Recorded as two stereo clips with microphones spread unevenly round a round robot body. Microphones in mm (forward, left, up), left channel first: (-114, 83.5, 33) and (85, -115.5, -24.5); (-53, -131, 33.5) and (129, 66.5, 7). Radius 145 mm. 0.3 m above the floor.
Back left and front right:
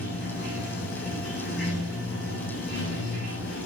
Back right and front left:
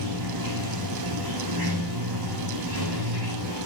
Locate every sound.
0.0 s running water: 75° left, 7.5 m